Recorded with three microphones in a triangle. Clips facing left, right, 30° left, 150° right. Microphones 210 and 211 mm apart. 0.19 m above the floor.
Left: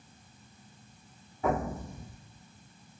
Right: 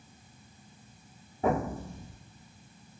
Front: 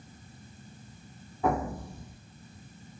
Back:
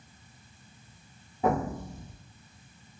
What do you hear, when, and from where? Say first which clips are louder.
1.4 s an explosion: right 2 dB, back 1 dB; 100° right, 1.1 m